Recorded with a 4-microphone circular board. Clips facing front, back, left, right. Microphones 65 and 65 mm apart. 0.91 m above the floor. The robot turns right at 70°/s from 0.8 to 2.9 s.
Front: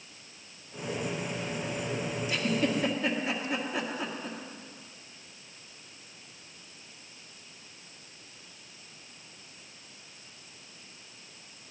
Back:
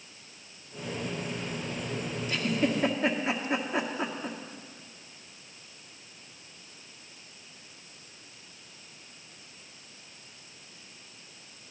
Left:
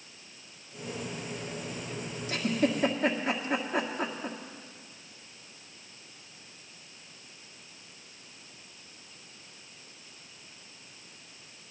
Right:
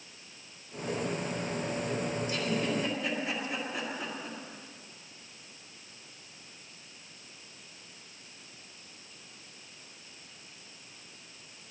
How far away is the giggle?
About 1.9 m.